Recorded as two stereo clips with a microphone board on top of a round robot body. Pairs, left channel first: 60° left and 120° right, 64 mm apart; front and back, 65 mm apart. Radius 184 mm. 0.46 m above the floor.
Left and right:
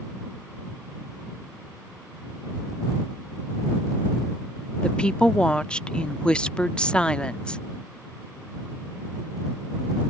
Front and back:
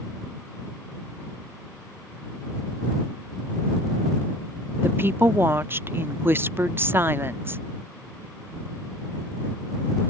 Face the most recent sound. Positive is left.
turn(degrees=135)